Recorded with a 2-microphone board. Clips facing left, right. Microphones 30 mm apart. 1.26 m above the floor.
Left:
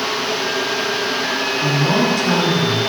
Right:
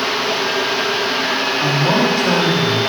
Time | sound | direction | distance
1.6 | a woman speaking | 20° right (ahead or behind) | 2.5 m